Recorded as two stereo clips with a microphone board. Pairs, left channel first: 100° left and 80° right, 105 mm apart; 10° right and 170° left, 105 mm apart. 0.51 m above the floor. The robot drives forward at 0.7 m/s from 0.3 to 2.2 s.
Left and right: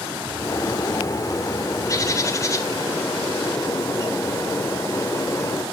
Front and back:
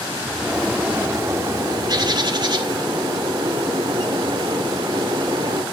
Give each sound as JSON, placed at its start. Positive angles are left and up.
{"t": 0.4, "sound": "a bird", "azimuth_deg": 85, "distance_m": 1.3}